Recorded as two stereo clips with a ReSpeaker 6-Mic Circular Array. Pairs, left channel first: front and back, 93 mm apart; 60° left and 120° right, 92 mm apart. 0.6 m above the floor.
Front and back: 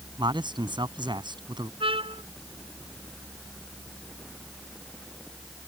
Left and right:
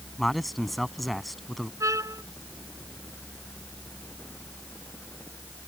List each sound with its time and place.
0.2 s a man speaking: 150° left
1.8 s a trumpet: 175° right